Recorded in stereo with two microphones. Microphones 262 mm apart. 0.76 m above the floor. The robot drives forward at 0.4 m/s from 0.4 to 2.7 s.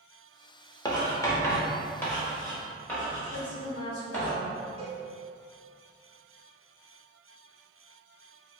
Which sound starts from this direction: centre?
Writing, at 0.8 s.